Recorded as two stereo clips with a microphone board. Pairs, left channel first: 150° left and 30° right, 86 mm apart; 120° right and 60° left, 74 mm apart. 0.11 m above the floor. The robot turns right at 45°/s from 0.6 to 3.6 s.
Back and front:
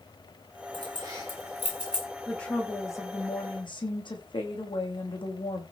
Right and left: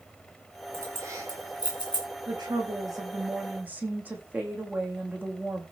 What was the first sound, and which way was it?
Keys jangling, straight ahead.